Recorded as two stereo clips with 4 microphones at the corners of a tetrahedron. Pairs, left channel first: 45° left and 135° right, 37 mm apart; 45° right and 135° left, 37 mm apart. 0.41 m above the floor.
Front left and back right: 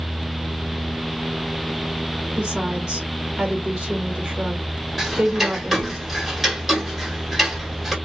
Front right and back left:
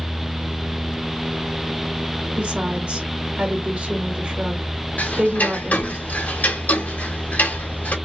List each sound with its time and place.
2.4 s a woman speaking: 160° left, 1.7 m
5.0 s ticking: 50° right, 1.4 m